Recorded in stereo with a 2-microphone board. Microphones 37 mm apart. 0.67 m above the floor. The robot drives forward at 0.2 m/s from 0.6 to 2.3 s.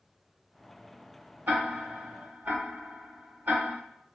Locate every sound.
1.5 s ticking: 65° right (ahead or behind), 1.0 m; by 3.8 s 55° right (ahead or behind), 1.0 m